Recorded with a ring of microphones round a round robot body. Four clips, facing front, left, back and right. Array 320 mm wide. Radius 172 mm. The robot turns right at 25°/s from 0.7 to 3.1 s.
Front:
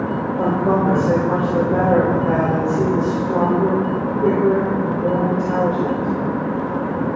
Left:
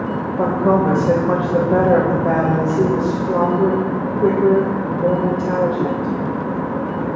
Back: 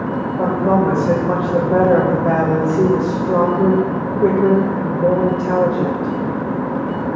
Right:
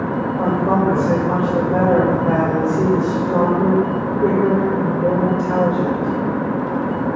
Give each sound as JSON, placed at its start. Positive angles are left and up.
{"t": 0.4, "sound": "a woman speaking", "azimuth_deg": 110, "distance_m": 1.4}